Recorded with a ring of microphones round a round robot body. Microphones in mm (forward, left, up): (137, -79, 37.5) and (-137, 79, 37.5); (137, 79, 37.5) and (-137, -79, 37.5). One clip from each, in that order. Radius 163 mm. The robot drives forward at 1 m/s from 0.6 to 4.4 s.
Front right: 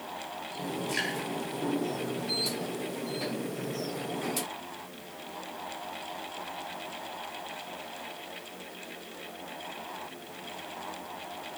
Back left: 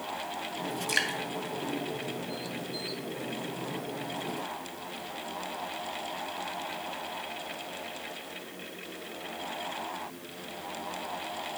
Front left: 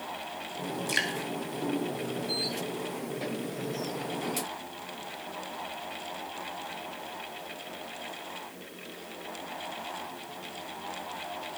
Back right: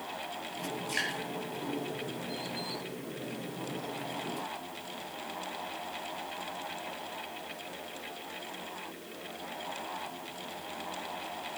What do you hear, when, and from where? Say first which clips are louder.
0.9 s dripping: back left 4 dB, front left 4 dB; 90° left, 3 m; by 1.2 s 95° left, 3 m